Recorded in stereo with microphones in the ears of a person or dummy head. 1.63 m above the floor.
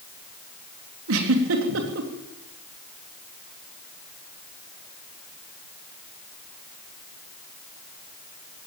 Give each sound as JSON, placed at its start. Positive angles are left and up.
{"t": 1.1, "sound": "a giggle", "side_deg": -75, "distance_m": 3.5}